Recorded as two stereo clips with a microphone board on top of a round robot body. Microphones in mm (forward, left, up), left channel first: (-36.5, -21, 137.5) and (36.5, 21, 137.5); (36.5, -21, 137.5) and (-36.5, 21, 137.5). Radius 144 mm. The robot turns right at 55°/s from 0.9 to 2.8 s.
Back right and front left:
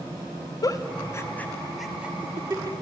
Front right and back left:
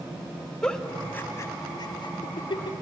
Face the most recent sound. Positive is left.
turn(degrees=-5)